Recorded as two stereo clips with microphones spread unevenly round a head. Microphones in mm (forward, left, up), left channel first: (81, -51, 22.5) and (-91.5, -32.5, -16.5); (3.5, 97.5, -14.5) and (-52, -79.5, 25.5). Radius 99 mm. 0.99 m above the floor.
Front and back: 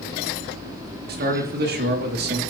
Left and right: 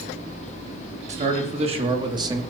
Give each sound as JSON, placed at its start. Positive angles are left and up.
{"t": 1.1, "sound": "a man speaking", "azimuth_deg": -165, "distance_m": 3.0}